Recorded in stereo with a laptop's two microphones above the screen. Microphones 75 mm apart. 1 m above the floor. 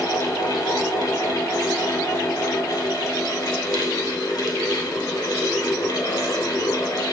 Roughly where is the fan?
Left.